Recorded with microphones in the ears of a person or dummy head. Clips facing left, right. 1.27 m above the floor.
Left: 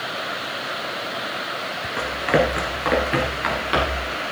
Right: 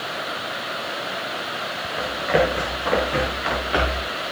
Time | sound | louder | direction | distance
2.0 | running footsteps | even | 70° left (ahead or behind) | 4 m